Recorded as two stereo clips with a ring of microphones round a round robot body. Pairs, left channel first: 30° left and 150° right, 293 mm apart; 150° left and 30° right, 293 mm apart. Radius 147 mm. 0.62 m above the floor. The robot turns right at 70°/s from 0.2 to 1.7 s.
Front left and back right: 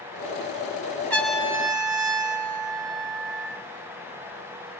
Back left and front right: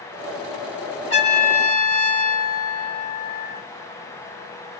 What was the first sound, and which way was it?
A trumpet, 110° left.